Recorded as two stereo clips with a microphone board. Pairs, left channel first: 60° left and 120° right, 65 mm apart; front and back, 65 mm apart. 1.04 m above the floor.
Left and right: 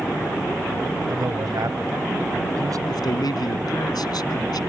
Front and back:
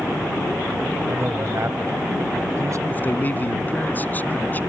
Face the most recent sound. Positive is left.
turn(degrees=60)